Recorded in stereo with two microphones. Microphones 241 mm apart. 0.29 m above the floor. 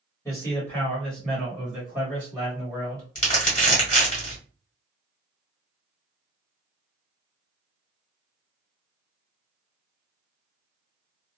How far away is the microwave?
No microwave in this recording.